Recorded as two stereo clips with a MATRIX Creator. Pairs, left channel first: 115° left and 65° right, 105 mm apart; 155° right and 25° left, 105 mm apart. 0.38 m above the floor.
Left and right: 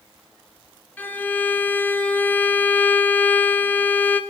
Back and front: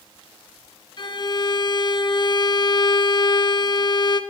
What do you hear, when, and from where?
1.0 s a violin: straight behind, 0.8 m